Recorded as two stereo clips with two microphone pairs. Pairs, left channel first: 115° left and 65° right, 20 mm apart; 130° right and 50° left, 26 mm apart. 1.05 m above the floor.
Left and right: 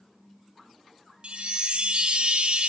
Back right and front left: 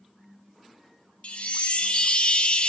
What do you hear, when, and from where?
1.2 s a chime: 95° right, 0.5 m